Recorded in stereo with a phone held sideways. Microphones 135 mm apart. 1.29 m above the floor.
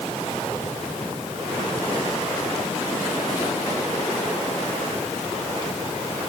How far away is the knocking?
No knocking in this recording.